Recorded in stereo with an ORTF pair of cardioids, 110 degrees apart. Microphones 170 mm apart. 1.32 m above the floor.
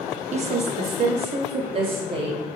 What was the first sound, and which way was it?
A woman speaking, 45° right.